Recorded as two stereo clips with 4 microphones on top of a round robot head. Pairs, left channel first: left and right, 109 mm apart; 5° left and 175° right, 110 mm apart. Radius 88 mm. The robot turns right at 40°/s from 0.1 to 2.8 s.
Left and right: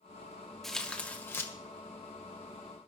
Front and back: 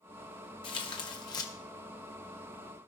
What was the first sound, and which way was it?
Tearing paper, 5° left.